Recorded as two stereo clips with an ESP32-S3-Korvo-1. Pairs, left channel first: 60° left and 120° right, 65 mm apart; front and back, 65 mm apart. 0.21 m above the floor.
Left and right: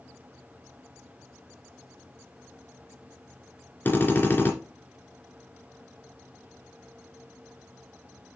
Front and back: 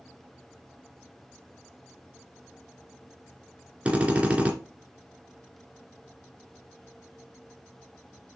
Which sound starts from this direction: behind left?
A drill, at 3.9 s.